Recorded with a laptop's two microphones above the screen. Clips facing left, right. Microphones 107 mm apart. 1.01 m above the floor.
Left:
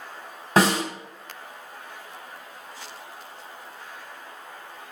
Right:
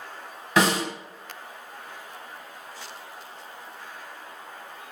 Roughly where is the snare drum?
Left.